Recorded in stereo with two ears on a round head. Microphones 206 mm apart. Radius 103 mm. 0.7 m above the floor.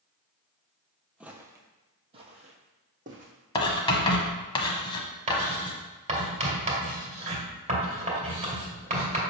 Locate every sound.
1.2 s footsteps: 5° right (ahead or behind), 0.8 m; by 3.3 s 35° right (ahead or behind), 1.6 m
3.5 s writing: 25° left (ahead or behind), 1.0 m
5.3 s writing: 30° right (ahead or behind), 2 m